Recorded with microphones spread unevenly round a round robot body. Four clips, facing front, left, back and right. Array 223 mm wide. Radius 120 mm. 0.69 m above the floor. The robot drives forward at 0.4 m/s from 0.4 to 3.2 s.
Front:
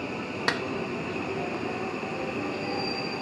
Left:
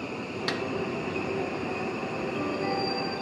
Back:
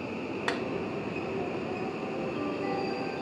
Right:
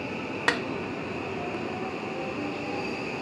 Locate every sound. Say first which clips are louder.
0.5 s a snare drum: right 6 dB, front 3 dB; 50° right, 0.7 m; by 0.6 s 55° right, 0.7 m